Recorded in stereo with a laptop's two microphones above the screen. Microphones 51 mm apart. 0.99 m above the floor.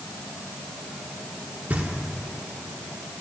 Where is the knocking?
30° right (ahead or behind), 1.3 m.